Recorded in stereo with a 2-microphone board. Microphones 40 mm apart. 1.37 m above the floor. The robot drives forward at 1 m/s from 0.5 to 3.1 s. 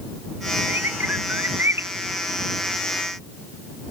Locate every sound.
0.7 s a bird: 75° right (ahead or behind); by 1.9 s 80° right